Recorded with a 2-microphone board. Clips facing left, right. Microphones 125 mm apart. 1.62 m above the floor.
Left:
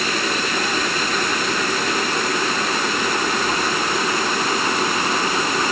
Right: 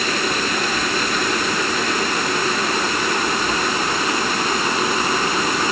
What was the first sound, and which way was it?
Only background noise.